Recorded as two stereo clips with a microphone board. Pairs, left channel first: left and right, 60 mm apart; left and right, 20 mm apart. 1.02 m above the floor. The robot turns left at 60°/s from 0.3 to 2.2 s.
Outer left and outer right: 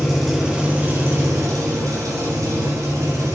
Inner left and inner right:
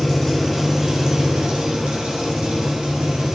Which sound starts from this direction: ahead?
An engine running, at 0.0 s.